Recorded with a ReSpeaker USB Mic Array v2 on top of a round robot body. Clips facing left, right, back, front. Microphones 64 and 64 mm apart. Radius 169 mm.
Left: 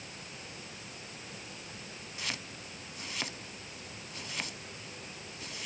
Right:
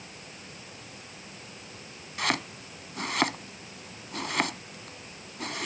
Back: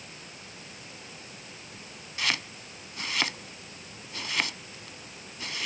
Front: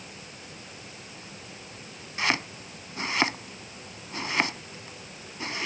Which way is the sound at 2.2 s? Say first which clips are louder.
Right 12 dB, front 4 dB; 60° right.